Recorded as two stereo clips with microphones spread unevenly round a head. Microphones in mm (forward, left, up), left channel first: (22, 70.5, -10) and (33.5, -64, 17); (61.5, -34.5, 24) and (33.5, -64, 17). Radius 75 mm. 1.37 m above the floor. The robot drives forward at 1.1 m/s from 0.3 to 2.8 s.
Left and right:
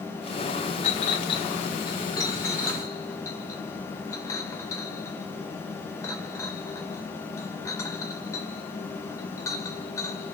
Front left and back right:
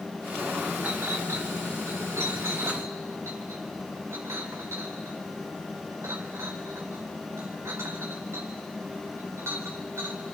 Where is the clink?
145° left, 1.0 m; by 10.2 s 170° left, 3 m.